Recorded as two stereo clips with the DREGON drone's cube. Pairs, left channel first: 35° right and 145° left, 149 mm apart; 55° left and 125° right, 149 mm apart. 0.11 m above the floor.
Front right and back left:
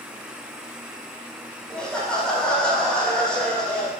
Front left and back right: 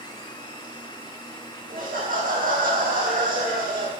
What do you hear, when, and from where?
1.7 s laughter: 120° right, 4.5 m